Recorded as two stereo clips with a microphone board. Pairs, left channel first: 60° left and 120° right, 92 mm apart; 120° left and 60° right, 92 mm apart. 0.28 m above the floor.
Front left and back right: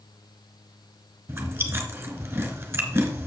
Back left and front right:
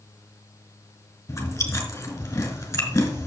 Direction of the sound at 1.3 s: Straight behind.